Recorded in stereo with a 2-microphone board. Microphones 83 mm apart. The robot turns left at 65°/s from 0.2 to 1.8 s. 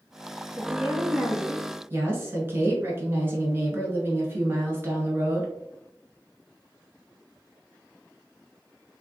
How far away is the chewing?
No chewing in this recording.